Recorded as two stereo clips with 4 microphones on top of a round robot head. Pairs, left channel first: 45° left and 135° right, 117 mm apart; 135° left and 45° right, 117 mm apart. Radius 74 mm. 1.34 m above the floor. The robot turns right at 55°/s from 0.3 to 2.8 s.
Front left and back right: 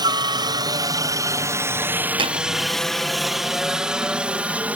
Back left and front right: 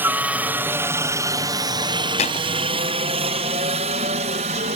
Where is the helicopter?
110° right; by 4.8 s 55° right.